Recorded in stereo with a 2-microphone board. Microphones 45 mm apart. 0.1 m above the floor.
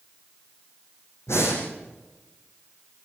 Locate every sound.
1.3 s breathing: 75° left (ahead or behind), 5.5 m